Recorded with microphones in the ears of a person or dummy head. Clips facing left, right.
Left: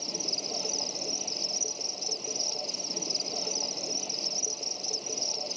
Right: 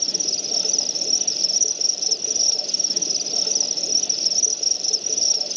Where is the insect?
20° right (ahead or behind).